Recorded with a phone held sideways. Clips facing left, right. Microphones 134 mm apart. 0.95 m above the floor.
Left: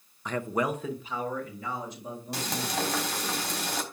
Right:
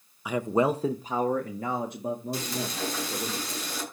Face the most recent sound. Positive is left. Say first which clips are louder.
# left 1 dB
turn(degrees=90)